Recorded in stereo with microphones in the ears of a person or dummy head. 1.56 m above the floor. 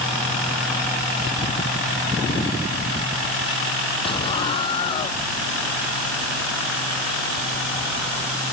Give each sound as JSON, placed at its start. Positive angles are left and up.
{"t": 4.0, "sound": "an explosion", "side_deg": 35}